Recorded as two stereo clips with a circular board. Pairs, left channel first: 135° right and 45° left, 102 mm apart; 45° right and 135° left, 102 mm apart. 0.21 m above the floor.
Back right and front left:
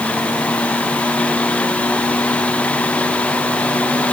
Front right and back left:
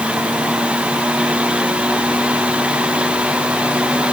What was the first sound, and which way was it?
Only background noise.